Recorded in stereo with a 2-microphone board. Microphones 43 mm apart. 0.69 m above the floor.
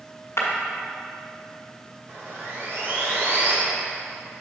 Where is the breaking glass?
80° left, 1.6 m.